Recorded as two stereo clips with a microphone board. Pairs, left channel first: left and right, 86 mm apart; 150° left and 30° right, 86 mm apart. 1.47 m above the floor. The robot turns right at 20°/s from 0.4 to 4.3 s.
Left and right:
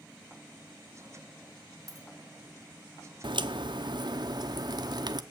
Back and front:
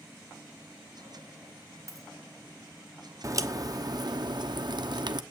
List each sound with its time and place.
1.9 s a dropped coin: 65° right, 1.2 m
3.2 s a crack: 80° right, 0.8 m; by 5.2 s 60° right, 0.8 m